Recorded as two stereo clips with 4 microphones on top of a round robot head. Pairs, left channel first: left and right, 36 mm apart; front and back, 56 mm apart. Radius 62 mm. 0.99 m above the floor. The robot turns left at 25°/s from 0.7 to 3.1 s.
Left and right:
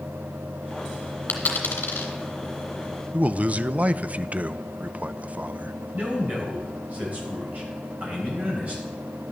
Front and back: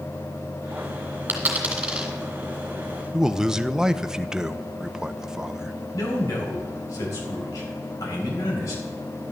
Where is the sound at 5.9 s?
35° right, 4.5 m.